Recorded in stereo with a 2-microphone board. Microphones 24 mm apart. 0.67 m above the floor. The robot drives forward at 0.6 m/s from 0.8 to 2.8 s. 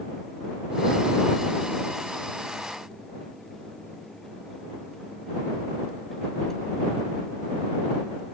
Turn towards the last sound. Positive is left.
No sound to turn to.